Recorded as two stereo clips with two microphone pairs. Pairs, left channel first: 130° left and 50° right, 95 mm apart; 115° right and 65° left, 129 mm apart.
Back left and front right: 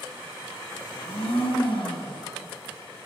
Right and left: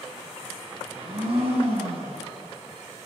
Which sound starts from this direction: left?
A blender, at 0.9 s.